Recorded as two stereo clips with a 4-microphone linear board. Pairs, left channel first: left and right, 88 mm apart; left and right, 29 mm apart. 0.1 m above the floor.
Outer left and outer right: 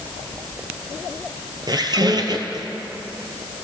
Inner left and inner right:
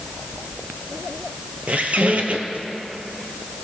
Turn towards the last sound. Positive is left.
turn(degrees=-55)  # may be behind; listen again after turning